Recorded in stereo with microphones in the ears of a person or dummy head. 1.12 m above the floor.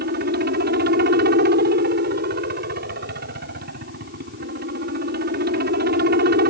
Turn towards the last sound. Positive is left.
turn(degrees=-50)  # may be behind; listen again after turning